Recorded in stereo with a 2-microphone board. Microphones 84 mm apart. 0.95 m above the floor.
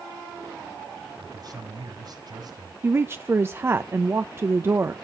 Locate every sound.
1.2 s a man speaking: 50° right (ahead or behind), 5 m
2.8 s a woman speaking: 30° right (ahead or behind), 0.6 m